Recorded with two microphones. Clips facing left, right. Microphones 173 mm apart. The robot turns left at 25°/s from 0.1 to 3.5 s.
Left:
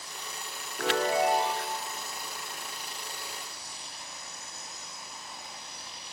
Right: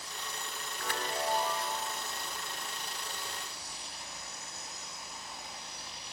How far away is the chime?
About 0.6 m.